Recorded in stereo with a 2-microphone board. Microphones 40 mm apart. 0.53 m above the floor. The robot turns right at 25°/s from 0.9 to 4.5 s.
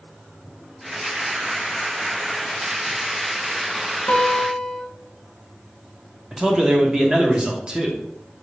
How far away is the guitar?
About 0.8 m.